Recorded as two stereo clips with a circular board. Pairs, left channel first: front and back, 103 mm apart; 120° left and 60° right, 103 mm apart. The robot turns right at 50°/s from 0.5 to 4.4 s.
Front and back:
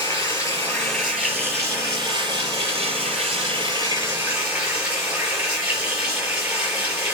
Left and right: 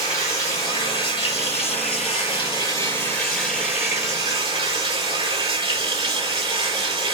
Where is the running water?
65° left, 5 m; by 7.1 s 100° right, 5 m.